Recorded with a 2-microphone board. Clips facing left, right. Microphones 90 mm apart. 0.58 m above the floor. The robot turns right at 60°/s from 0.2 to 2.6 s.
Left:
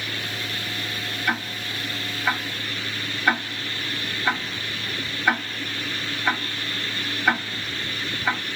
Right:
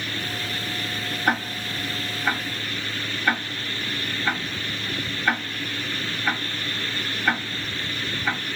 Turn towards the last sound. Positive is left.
turn(degrees=15)  # may be behind; listen again after turning